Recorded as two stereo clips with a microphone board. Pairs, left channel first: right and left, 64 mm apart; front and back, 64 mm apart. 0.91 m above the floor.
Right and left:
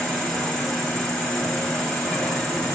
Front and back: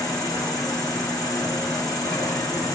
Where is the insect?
10° right, 2.5 m.